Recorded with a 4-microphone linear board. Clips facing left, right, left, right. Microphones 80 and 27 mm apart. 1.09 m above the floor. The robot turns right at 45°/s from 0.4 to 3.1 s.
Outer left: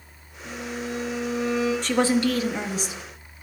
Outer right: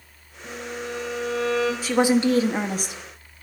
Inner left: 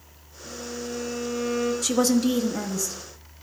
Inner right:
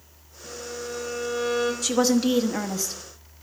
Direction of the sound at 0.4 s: 150° right.